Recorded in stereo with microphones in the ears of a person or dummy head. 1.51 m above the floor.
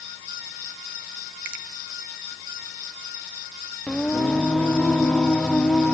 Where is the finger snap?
70° right (ahead or behind), 2.5 m.